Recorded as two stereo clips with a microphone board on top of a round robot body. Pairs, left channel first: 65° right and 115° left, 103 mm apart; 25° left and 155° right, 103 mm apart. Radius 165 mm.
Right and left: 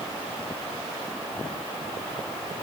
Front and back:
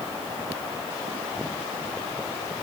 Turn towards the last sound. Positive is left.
No sound to turn to.